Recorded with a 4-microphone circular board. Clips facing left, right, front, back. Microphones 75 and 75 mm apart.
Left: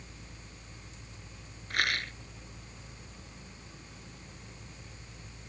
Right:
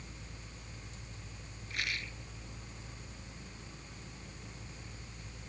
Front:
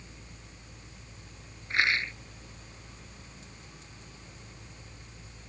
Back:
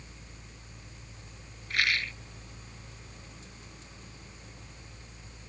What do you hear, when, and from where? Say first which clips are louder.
1.7 s a rattle: left 8 dB, front 2 dB; 65° left